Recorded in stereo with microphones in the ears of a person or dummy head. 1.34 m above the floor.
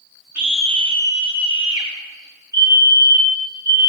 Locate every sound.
0.3 s a scream: 5° right (ahead or behind), 0.6 m; by 1.9 s 30° left (ahead or behind), 1.4 m
2.5 s a fire alarm: 15° right (ahead or behind), 3.5 m